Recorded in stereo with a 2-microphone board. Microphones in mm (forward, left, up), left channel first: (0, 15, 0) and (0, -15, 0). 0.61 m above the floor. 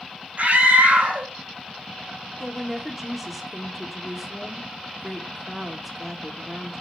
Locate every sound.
0.4 s a scream: 65° right (ahead or behind), 4 m
2.4 s a woman speaking: 5° right (ahead or behind), 1.5 m